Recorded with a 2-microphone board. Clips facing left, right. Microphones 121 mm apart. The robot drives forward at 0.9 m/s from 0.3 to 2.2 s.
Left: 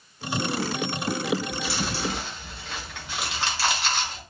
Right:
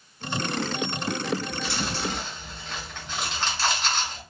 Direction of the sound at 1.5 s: 10° left (ahead or behind).